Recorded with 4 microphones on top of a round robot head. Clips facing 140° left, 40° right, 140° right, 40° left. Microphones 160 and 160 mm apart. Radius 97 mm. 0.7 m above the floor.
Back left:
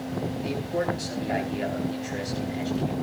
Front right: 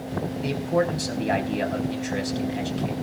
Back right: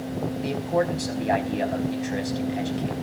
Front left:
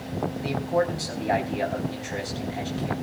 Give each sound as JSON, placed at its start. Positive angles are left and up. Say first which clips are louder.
{"t": 0.4, "sound": "a man speaking", "louder": "front right 6 dB, even", "azimuth_deg": -70, "distance_m": 5.0}